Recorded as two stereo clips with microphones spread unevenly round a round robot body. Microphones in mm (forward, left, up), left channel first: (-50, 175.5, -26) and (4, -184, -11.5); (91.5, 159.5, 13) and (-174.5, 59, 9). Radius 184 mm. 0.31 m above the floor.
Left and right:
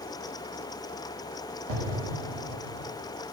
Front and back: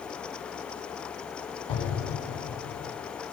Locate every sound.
1.7 s an explosion: 55° right, 2 m